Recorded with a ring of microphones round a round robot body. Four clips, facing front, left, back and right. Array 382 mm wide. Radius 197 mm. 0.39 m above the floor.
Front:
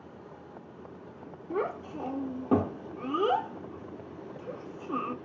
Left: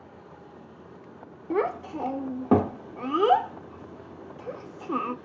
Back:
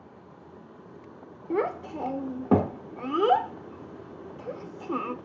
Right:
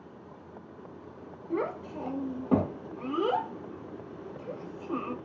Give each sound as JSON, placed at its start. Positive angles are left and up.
{"t": 1.5, "sound": "a child speaking", "azimuth_deg": 120, "distance_m": 0.6}